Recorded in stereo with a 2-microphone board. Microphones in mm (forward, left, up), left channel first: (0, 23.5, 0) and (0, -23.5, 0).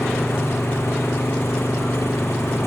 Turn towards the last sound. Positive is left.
turn(degrees=65)  # may be behind; listen again after turning